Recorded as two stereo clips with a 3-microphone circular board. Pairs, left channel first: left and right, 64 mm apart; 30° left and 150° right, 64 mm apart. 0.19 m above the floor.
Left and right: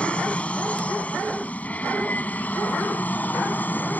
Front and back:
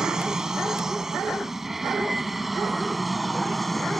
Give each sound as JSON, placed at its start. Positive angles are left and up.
{"t": 0.0, "sound": "an aircraft", "azimuth_deg": 140}